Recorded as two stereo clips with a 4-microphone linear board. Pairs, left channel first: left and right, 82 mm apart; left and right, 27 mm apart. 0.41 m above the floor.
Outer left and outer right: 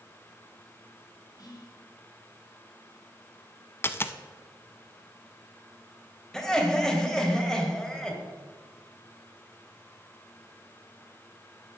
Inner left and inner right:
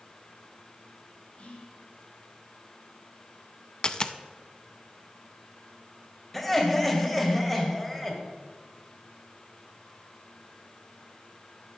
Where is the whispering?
55° left (ahead or behind), 2.5 m.